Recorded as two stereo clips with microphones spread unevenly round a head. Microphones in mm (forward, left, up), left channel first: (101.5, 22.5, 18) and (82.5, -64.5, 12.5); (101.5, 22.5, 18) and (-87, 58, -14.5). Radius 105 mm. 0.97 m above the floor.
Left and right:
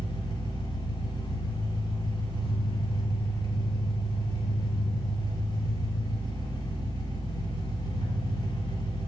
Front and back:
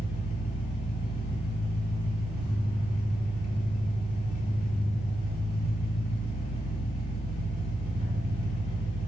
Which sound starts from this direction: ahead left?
An engine running, at 0.0 s.